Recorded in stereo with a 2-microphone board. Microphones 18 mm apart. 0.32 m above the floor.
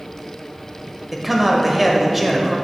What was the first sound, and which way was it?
A man speaking, 10° right (ahead or behind).